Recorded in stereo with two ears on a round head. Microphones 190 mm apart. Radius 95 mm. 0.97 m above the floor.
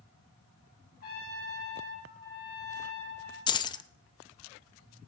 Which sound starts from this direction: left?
A trumpet, at 1.0 s.